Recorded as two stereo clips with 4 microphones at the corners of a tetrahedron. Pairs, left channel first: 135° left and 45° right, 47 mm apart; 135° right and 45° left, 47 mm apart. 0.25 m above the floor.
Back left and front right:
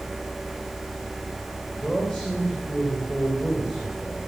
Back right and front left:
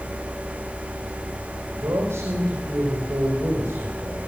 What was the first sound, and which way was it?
A man speaking, 60° left.